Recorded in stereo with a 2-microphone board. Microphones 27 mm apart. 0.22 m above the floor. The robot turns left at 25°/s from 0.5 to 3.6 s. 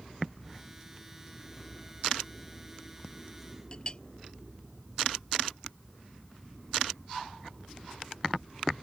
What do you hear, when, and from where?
3.7 s a clink: 30° left (ahead or behind)